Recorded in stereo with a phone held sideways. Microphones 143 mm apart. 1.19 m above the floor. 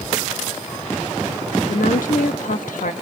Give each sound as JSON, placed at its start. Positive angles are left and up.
{"t": 1.7, "sound": "a woman speaking", "side_deg": 75, "distance_m": 1.5}